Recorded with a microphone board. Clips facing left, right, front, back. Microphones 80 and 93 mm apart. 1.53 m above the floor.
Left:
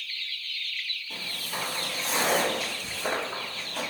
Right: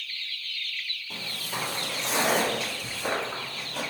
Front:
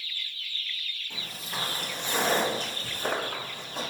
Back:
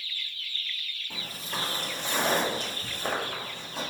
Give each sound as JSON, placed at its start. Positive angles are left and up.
{"t": 1.1, "sound": "footsteps", "azimuth_deg": -125, "distance_m": 1.7}